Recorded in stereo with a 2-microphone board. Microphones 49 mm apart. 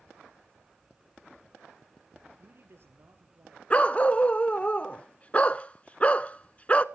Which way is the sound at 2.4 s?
50° right (ahead or behind).